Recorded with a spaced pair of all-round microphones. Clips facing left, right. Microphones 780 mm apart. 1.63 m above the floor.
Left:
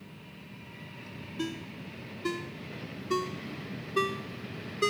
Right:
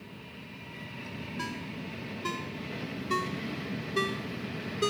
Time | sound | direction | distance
1.4 | a ringtone | 30° right (ahead or behind) | ?